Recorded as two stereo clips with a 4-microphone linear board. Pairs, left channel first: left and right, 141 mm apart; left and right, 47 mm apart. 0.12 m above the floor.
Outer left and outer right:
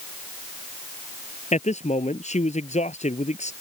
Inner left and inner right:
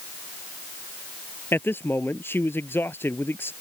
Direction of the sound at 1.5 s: 55° left (ahead or behind).